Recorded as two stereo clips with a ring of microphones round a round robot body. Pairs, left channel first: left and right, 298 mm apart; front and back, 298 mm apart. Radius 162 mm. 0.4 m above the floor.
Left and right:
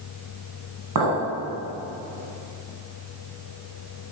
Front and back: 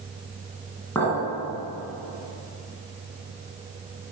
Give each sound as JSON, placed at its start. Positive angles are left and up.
{"t": 0.9, "sound": "a clink", "azimuth_deg": -85, "distance_m": 2.0}